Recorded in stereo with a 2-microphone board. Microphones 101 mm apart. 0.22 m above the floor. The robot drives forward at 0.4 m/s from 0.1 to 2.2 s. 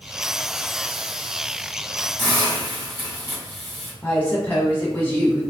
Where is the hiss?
40° left (ahead or behind), 1.9 m.